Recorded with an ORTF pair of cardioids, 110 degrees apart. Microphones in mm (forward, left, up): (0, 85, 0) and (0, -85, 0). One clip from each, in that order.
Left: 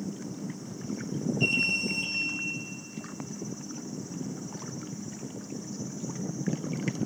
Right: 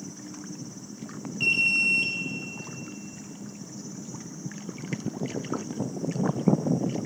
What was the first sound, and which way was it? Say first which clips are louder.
An alarm: right 5 dB; 40° right.